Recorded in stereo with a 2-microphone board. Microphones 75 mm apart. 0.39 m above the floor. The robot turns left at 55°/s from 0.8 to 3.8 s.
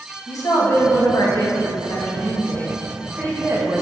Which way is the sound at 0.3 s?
120° left.